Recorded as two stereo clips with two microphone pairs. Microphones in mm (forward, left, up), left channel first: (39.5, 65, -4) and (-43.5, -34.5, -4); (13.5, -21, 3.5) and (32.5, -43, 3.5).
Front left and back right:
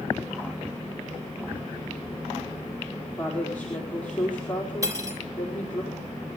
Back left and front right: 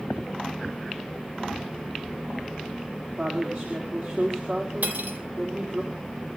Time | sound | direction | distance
3.2 | a woman speaking | 30° right | 4.5 m
4.8 | cutlery clinking | 65° right | 3 m